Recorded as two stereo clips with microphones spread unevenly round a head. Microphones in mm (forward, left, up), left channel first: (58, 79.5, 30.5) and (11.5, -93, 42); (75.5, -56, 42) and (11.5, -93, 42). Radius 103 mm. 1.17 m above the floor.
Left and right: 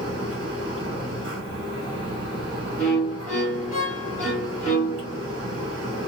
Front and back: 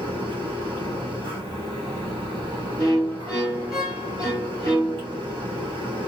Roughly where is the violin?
Behind left.